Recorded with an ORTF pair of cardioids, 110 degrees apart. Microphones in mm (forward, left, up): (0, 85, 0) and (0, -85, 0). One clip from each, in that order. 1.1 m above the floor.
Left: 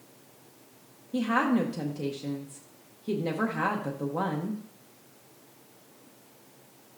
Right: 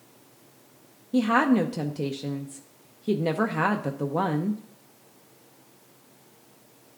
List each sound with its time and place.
1.1 s a woman speaking: 25° right, 0.7 m